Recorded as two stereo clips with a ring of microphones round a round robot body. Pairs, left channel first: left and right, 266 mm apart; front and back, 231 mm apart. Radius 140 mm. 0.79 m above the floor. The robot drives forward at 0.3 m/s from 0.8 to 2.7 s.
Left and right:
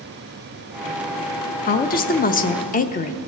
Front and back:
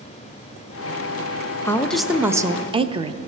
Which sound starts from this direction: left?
A woman speaking, at 1.6 s.